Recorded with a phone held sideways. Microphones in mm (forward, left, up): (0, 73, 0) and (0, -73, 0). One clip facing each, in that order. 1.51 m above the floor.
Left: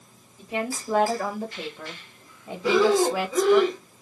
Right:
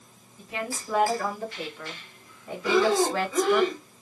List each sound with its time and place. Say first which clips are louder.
0.4 s a woman speaking: left 4 dB; 30° left (ahead or behind), 3.5 m; by 3.6 s centre (ahead or behind), 1.1 m
2.6 s breathing: left 3 dB; 30° left (ahead or behind), 3.5 m